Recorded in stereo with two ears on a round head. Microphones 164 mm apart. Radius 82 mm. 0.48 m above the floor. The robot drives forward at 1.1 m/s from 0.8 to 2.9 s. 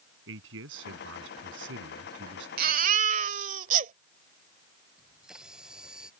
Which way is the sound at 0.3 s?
75° right (ahead or behind).